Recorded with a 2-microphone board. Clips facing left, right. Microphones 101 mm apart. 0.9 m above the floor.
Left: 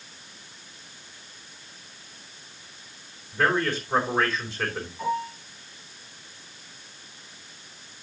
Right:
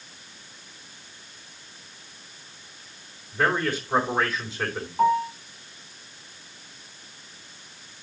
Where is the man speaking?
10° right (ahead or behind), 4 m.